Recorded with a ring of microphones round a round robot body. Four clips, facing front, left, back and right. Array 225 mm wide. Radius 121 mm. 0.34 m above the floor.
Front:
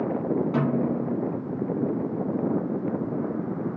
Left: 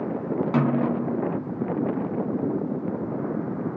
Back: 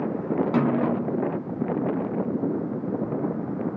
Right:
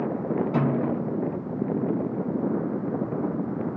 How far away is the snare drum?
About 0.9 m.